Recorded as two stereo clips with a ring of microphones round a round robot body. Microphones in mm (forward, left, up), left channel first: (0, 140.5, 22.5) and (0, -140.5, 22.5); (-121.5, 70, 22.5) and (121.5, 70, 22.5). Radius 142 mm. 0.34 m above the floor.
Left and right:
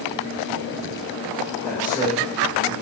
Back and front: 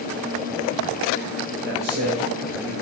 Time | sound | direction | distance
1.6 | a man speaking | 10° left | 5 m